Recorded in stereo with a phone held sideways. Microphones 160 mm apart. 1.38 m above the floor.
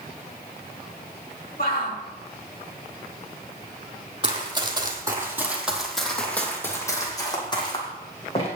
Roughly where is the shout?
Left.